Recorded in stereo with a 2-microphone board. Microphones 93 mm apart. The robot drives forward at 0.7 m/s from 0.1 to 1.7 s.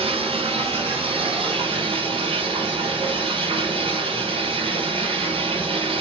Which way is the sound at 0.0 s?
90° right.